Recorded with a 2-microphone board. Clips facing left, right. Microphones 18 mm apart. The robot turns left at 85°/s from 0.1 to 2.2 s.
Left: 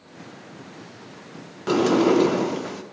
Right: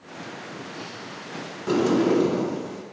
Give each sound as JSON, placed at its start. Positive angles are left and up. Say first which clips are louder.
{"t": 1.7, "sound": "a sliding door", "louder": "left 2 dB", "azimuth_deg": 160, "distance_m": 0.7}